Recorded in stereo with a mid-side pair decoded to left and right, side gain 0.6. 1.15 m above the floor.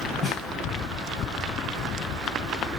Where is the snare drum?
Straight ahead, 6 m.